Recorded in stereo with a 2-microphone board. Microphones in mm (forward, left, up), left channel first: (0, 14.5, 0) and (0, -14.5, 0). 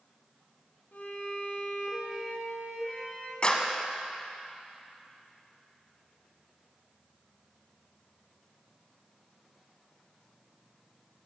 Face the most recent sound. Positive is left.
turn(degrees=35)  # may be behind; listen again after turning